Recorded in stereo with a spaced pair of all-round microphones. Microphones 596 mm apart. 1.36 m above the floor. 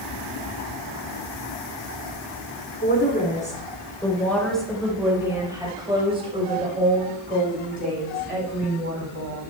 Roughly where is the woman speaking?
Centre.